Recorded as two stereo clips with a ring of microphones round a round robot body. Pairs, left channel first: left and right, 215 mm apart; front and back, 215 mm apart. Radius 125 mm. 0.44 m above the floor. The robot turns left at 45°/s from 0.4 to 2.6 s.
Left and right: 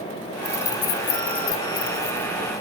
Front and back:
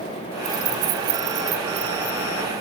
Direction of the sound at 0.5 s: 155° left.